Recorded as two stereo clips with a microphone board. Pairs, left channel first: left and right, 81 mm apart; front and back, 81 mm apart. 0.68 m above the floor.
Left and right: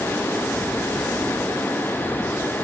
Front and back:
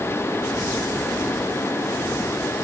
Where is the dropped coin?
No dropped coin in this recording.